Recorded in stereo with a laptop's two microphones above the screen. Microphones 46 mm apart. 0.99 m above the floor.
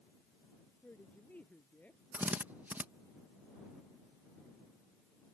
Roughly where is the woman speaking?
Left.